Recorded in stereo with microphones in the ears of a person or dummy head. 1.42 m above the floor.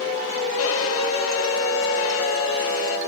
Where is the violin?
90° left, 1.1 m.